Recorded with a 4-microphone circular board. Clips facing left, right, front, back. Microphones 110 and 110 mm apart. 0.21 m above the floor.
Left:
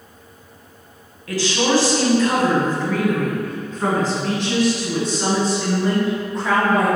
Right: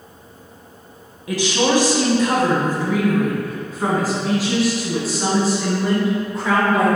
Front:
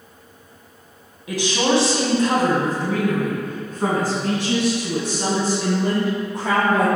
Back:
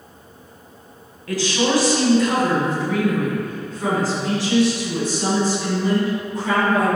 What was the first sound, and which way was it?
A woman speaking, 45° right.